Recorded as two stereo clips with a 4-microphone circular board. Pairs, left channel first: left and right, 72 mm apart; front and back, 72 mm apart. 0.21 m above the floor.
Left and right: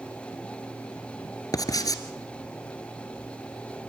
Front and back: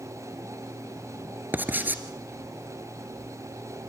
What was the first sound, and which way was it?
Writing, 115° left.